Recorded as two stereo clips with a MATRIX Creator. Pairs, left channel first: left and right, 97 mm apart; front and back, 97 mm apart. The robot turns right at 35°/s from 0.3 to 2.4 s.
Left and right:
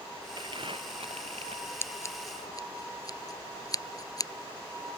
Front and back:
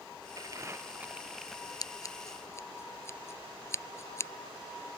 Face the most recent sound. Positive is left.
turn(degrees=50)